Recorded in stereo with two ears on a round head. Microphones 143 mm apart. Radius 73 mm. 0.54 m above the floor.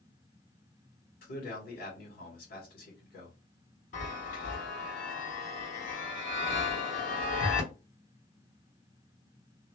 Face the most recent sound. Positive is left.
turn(degrees=50)  # may be behind; listen again after turning